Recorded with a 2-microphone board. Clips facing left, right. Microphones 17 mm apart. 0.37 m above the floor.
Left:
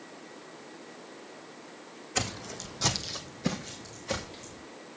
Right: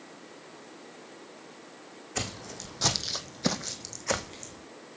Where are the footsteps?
10° left (ahead or behind), 1.5 m; by 4.6 s 75° right (ahead or behind), 1.9 m.